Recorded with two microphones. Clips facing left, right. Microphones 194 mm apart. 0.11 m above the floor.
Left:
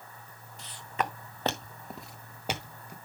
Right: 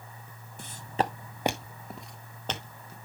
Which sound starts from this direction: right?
Footsteps, at 0.6 s.